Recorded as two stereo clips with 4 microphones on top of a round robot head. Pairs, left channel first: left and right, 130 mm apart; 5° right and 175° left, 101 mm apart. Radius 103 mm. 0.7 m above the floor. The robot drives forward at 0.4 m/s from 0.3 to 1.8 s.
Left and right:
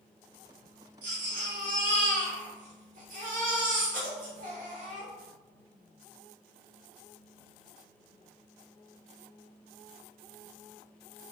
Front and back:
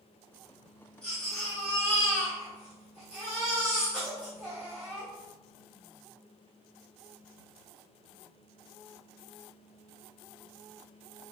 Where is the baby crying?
85° right, 1.0 m; by 5.1 s 105° right, 1.0 m.